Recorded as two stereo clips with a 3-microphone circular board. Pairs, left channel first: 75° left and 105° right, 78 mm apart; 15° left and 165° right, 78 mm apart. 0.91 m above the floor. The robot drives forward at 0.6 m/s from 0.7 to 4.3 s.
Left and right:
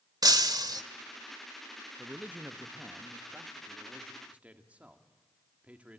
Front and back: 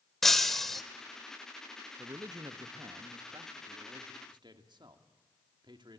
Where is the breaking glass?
70° right, 1.4 m; by 0.8 s 75° right, 1.3 m.